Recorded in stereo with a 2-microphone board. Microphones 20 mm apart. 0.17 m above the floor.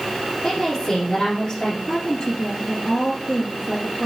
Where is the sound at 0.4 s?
30° left (ahead or behind), 4 m.